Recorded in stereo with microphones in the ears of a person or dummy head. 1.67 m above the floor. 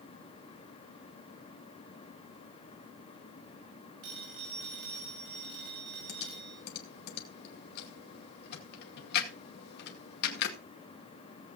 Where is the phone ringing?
70° right (ahead or behind), 6.5 m.